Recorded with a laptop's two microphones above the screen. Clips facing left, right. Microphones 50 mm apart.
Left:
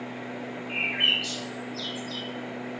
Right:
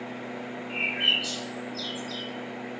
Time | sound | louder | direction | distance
0.7 | a bird | left 1 dB | 65° left (ahead or behind) | 3 m